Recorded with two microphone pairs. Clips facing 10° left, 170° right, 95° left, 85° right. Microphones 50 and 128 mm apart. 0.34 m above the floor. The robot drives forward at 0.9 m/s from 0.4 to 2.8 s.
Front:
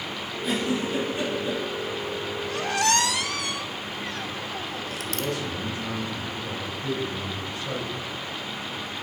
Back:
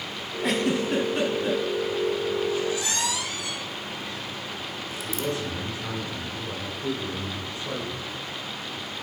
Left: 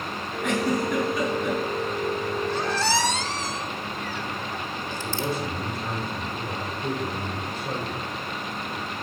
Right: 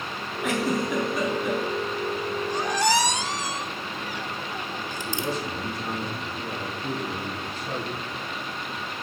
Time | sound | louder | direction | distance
0.4 | a giggle | back 2 dB, left 1 dB | 170° right | 1.9 m
2.5 | a squeak | front 3 dB, right 4 dB | 5° right | 1.1 m
4.9 | a man speaking | back 1 dB, left 1 dB | 130° left | 5 m